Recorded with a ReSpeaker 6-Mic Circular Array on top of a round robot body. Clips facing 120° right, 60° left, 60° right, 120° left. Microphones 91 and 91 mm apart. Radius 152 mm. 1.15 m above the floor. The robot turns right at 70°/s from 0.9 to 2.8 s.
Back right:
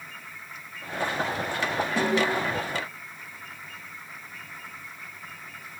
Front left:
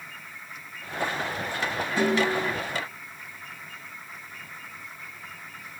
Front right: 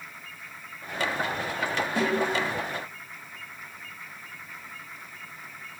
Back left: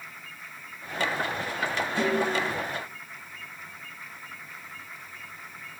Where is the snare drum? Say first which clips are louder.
Front left 2 dB, even; 90° right, 1.2 m; by 2.4 s 60° right, 1.2 m.